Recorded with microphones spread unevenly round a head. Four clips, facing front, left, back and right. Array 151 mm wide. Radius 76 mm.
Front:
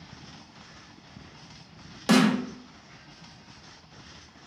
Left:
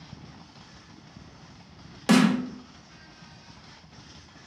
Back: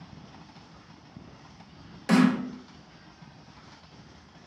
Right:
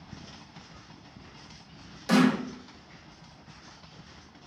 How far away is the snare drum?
About 0.6 m.